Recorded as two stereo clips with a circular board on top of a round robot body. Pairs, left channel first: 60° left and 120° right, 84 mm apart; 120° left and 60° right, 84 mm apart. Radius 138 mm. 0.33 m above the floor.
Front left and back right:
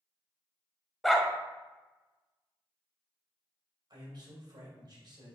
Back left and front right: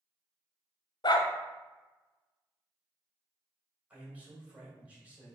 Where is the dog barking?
150° left, 0.7 m.